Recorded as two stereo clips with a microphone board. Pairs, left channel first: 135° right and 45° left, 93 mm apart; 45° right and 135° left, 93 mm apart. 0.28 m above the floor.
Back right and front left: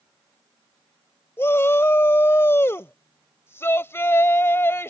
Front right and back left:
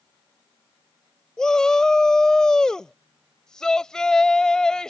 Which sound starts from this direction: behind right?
A shout, at 1.4 s.